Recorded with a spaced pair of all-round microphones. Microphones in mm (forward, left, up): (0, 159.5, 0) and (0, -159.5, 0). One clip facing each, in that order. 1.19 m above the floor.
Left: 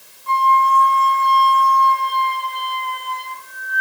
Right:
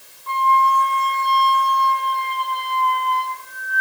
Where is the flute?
5° right (ahead or behind), 1.8 m.